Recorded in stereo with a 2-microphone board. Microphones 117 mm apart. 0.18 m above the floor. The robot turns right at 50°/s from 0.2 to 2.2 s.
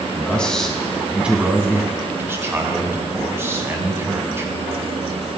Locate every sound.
0.1 s a man speaking: 10° left (ahead or behind), 1.0 m; by 5.4 s 25° right (ahead or behind), 1.0 m